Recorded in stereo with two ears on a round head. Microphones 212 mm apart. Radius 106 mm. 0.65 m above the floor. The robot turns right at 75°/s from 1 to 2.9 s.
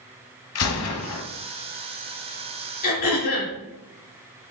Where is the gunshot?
70° left (ahead or behind), 1.0 m; by 1.2 s 60° left (ahead or behind), 1.0 m.